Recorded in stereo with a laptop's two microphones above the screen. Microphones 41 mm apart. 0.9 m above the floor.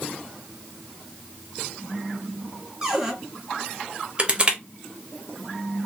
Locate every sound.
2.8 s a cupboard door: 5° right (ahead or behind), 1.4 m
4.2 s crushing: 25° right (ahead or behind), 0.6 m